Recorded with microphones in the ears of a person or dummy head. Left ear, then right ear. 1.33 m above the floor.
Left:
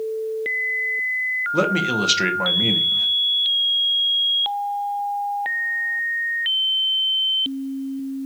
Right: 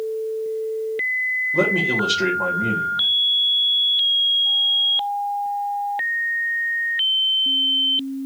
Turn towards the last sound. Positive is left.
turn(degrees=65)  # may be behind; listen again after turning